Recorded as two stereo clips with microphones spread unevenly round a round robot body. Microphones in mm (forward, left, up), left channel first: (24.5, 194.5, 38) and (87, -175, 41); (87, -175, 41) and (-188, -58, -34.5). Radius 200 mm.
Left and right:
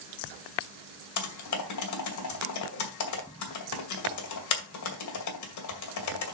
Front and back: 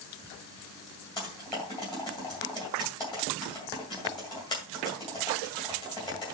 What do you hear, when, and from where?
1.2 s typing on a keyboard: 55° left, 2 m